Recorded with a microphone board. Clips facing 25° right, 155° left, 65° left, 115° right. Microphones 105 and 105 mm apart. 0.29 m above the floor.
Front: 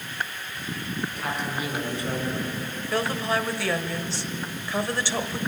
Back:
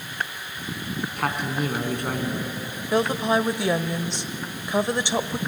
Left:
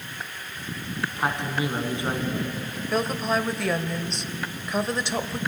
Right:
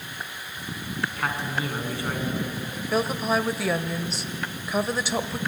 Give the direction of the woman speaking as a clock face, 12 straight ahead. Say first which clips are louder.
Back 5 dB, right 1 dB; 6 o'clock.